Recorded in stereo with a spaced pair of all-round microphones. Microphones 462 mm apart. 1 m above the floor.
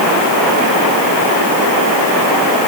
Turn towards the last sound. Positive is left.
No sound to turn to.